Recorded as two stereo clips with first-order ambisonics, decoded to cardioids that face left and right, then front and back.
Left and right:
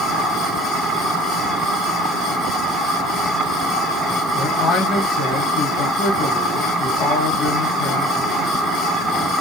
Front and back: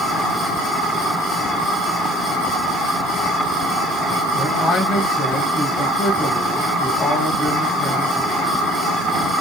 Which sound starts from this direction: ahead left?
A man speaking, at 4.3 s.